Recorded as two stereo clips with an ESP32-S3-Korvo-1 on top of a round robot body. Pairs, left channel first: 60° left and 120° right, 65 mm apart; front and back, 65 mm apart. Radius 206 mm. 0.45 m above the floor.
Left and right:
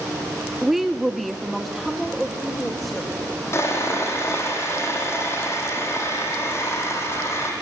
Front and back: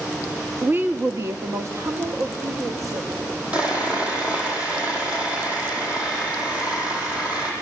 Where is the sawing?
110° left, 7.5 m.